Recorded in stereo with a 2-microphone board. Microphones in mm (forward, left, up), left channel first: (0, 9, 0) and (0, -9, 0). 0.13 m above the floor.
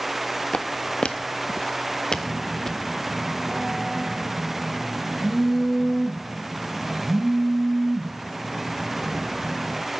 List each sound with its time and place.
0.5 s footsteps: 55° left (ahead or behind), 1.0 m; by 2.8 s 20° left (ahead or behind), 1.5 m
2.1 s a phone buzzing: 5° right (ahead or behind), 3.5 m